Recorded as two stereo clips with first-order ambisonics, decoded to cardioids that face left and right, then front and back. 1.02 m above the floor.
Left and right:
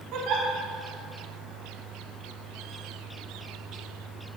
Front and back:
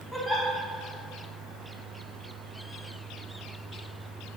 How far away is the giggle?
About 1.4 m.